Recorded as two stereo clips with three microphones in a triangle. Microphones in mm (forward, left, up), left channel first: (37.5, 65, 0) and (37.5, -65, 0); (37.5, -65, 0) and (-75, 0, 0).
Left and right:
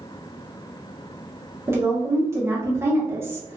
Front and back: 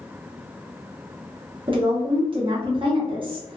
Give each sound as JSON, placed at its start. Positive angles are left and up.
{"t": 1.7, "sound": "a woman speaking", "azimuth_deg": -160, "distance_m": 1.0}